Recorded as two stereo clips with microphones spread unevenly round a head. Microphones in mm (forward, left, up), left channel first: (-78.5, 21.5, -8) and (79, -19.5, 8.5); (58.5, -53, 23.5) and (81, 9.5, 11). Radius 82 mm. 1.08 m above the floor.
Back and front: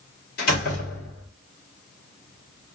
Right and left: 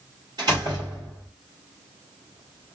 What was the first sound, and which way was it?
A door slam, 130° left.